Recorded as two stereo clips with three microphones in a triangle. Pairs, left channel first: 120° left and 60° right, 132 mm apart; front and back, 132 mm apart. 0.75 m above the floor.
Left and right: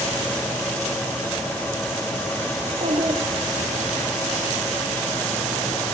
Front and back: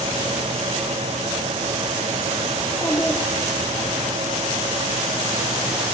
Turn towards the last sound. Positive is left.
turn(degrees=-95)